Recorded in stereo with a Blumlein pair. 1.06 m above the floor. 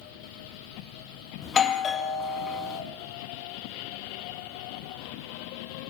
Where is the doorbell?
20° left, 1.6 m.